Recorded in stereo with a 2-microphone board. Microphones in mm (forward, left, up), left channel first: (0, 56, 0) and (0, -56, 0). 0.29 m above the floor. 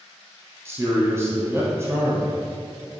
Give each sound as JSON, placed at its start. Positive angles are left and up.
{"t": 0.7, "sound": "a man speaking", "side_deg": -25, "distance_m": 2.5}